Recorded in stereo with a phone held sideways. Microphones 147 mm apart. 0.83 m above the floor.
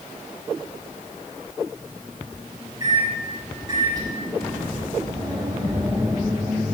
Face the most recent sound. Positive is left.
turn(degrees=-25)  # may be behind; listen again after turning